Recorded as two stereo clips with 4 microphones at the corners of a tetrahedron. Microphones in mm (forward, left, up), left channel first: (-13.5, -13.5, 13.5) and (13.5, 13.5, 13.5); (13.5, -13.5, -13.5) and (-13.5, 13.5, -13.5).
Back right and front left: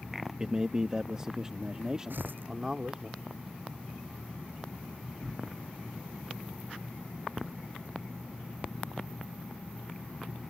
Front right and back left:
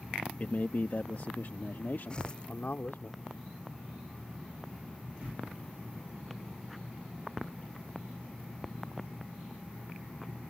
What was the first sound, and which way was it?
A man speaking, 20° right.